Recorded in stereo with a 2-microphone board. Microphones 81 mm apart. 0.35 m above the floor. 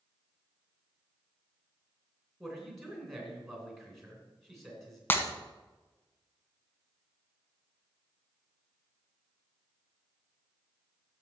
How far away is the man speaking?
About 3 m.